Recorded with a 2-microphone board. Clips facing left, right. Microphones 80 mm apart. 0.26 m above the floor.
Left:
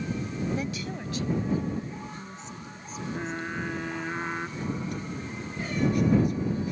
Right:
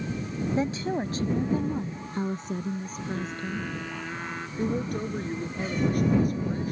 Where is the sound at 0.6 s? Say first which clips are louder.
Right 6 dB; 30° right (ahead or behind); by 3.7 s 55° right (ahead or behind).